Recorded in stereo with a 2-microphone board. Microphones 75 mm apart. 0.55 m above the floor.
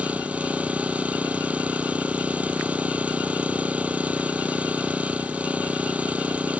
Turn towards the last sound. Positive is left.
turn(degrees=-20)  # may be behind; listen again after turning